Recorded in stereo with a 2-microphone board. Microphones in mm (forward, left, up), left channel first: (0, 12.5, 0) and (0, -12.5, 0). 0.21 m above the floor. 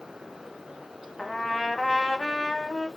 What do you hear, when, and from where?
1.2 s a trumpet: 5° left (ahead or behind), 1.1 m